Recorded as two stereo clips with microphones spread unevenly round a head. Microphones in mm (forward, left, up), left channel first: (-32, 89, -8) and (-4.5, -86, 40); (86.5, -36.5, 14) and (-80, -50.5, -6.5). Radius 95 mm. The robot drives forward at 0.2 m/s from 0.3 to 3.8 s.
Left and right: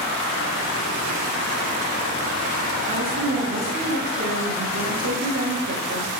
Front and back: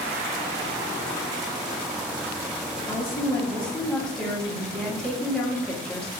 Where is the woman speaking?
70° right, 1.0 m; by 6.1 s 80° right, 1.0 m.